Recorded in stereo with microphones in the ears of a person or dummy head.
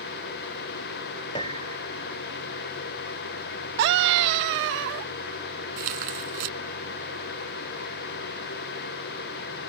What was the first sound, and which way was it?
A piano, 25° left (ahead or behind).